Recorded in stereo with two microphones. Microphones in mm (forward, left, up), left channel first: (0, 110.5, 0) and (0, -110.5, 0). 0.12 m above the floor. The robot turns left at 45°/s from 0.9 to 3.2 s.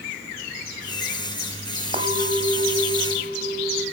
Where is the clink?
30° right, 3 m; by 3.8 s 85° right, 3 m.